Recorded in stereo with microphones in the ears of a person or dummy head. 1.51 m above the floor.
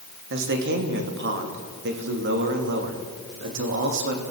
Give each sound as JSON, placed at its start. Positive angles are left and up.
{"t": 0.3, "sound": "a man speaking", "side_deg": -55, "distance_m": 3.0}